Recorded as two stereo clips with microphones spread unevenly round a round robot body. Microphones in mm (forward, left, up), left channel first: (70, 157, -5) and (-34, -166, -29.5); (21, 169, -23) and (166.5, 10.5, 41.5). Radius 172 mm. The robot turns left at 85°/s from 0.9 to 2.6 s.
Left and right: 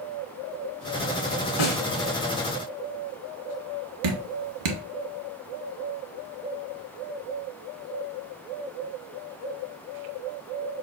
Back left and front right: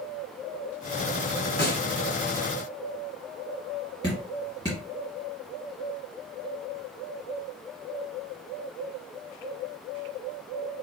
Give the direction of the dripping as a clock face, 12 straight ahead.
4 o'clock.